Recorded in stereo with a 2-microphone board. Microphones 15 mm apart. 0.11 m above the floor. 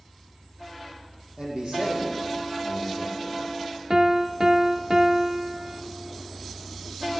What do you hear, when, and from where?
1.4 s a man speaking: 70° right (ahead or behind), 4 m
3.9 s a piano: 40° right (ahead or behind), 0.6 m